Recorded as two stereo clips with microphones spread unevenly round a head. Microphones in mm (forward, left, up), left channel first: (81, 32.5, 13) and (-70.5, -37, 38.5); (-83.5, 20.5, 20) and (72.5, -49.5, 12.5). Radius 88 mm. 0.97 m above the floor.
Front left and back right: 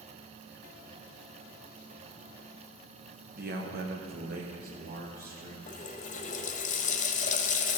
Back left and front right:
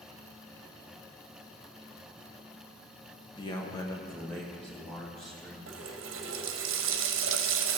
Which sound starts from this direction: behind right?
A man speaking, at 3.4 s.